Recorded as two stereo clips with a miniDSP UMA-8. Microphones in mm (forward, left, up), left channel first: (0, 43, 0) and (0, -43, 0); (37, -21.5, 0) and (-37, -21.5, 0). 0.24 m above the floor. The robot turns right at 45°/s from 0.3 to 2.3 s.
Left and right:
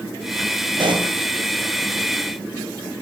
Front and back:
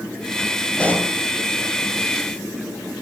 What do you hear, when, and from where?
0.8 s a pop: 75° right, 3 m; by 1.1 s 60° right, 3 m